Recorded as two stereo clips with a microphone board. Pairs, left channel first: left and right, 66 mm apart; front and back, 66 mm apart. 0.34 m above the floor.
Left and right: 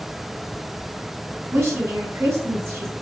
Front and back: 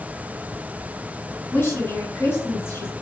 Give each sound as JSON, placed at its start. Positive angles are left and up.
{"t": 1.5, "sound": "a woman speaking", "azimuth_deg": -50, "distance_m": 2.5}